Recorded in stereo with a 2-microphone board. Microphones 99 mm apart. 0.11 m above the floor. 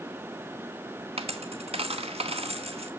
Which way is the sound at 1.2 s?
85° right.